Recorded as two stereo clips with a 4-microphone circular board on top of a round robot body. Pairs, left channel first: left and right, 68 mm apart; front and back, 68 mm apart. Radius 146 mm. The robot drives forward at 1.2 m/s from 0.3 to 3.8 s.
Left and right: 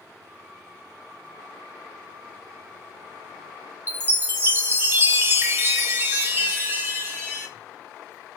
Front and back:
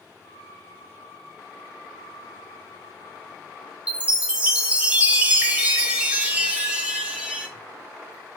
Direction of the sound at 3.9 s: 120° right.